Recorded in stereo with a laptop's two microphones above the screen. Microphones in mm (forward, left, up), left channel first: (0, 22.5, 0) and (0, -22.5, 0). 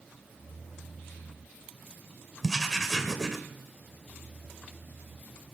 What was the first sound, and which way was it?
Writing, 10° left (ahead or behind).